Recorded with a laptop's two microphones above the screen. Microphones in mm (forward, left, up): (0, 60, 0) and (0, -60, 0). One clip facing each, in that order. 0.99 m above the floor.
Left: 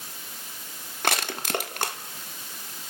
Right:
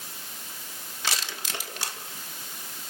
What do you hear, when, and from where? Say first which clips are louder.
1.0 s crushing: left 7 dB; 55° left (ahead or behind), 1.4 m